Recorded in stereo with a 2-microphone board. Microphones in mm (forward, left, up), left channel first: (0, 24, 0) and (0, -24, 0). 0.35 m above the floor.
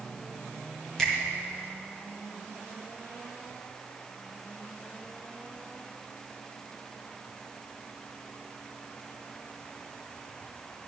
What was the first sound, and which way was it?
A finger snap, 10° left (ahead or behind).